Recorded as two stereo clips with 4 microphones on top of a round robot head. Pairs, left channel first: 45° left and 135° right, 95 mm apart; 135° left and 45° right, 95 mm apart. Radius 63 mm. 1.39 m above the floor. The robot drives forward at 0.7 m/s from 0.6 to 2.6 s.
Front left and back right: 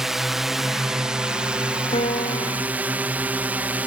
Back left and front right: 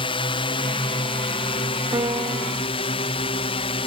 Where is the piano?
10° left.